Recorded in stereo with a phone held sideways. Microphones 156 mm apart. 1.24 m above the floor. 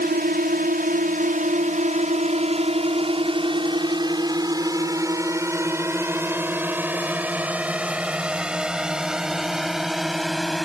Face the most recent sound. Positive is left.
turn(degrees=0)  # may be behind; listen again after turning